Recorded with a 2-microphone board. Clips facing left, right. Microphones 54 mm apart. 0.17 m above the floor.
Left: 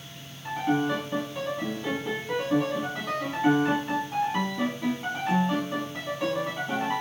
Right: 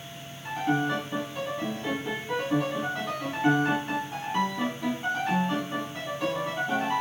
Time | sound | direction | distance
0.5 | a piano | 5° left (ahead or behind) | 1.4 m